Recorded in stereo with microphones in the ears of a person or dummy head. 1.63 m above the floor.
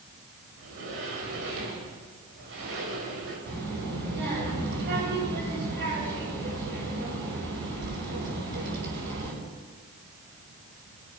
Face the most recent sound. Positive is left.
turn(degrees=-70)  # may be behind; listen again after turning